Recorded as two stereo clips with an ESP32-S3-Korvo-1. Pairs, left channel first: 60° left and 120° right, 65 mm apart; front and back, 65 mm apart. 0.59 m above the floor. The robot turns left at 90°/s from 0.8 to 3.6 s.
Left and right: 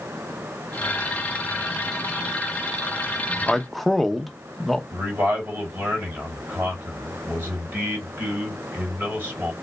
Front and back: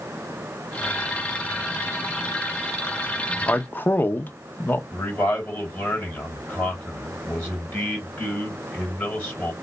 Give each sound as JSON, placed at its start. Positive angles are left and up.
{"t": 3.5, "sound": "a man speaking", "azimuth_deg": -15, "distance_m": 0.6}
{"t": 4.9, "sound": "a man speaking", "azimuth_deg": -60, "distance_m": 3.0}